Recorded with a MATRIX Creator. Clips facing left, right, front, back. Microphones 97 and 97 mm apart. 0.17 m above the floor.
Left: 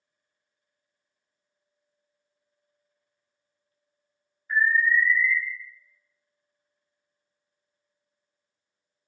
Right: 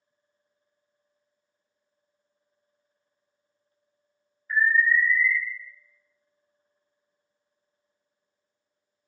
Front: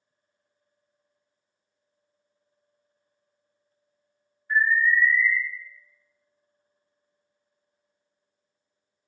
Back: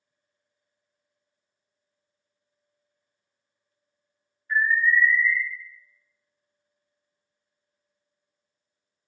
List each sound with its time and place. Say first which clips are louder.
4.5 s an alarm: even, even; 30° left, 1.7 m